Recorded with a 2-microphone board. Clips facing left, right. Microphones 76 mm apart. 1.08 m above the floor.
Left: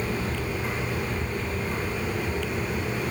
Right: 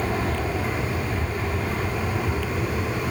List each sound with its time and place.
0.0 s an aircraft: 65° right (ahead or behind)